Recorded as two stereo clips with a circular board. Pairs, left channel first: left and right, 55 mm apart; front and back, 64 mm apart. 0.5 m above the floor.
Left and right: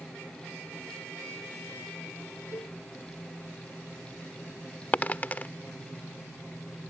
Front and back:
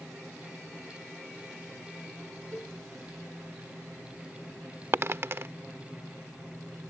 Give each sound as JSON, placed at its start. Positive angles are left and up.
{"t": 2.5, "sound": "a cowbell", "azimuth_deg": 65}
{"t": 4.9, "sound": "a dropped coin", "azimuth_deg": 140}